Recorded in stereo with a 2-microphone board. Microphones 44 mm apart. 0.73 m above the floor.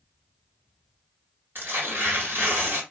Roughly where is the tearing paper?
Right.